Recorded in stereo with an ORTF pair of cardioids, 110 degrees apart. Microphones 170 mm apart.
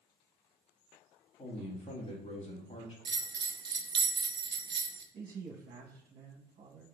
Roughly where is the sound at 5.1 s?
Ahead right.